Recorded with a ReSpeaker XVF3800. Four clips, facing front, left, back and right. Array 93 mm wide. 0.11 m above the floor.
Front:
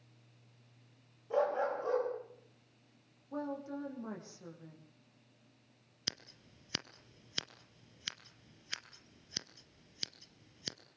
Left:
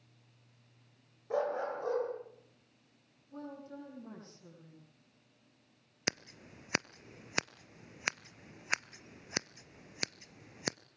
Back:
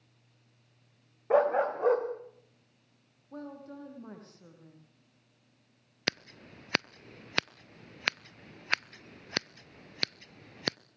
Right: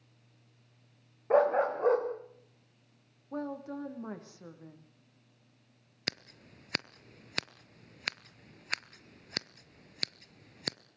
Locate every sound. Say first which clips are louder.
1.3 s a dog barking: right 8 dB, back 7 dB; 140° right, 5 m
3.3 s a woman speaking: right 8 dB, front 4 dB; 75° right, 6 m
6.1 s scissors: left 3 dB, back 13 dB; 160° left, 0.5 m